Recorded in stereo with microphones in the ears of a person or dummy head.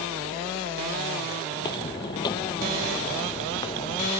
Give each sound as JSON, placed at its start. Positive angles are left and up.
{"t": 1.5, "sound": "footsteps", "side_deg": 20}